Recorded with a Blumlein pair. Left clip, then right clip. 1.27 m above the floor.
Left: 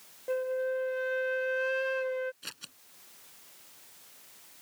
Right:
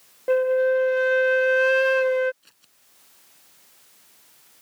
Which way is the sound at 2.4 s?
35° left.